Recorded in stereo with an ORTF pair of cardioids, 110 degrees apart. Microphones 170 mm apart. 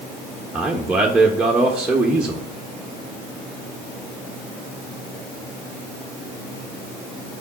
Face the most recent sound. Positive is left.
turn(degrees=-5)